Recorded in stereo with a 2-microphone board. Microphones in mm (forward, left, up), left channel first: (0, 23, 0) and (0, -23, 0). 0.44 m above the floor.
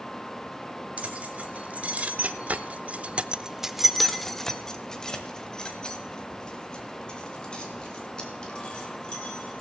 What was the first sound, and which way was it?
Keys jangling, 30° right (ahead or behind).